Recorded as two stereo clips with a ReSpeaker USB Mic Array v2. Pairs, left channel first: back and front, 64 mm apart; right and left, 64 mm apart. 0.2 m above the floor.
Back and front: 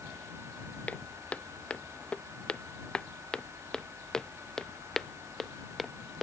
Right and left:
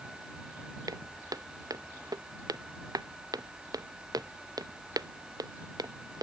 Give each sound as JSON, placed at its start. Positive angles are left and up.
{"t": 0.9, "sound": "footsteps", "azimuth_deg": 110}